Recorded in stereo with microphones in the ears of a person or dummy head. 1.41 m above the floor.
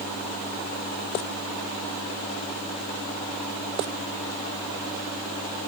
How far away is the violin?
I don't hear a violin.